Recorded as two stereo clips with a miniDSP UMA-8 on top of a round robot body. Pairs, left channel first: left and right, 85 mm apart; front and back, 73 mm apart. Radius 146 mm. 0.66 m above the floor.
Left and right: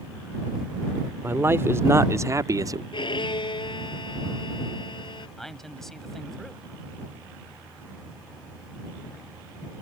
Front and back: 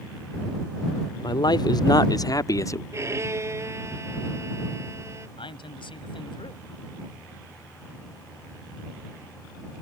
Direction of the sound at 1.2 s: 25° right.